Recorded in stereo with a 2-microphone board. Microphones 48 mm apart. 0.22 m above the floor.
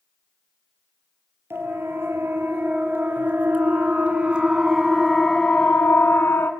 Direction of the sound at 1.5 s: 55° right (ahead or behind).